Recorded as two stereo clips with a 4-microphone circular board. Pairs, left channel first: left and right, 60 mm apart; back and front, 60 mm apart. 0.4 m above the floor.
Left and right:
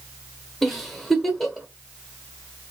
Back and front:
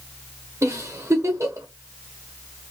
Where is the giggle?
Straight ahead, 0.9 m.